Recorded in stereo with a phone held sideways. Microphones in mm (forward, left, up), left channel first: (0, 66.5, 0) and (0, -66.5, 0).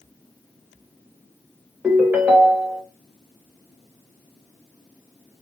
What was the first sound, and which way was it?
A ringtone, 10° right (ahead or behind).